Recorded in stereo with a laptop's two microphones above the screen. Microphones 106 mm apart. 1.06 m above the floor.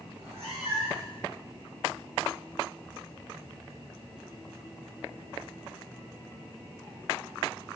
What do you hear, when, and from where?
0.1 s a cat meowing: 65° right (ahead or behind), 3.5 m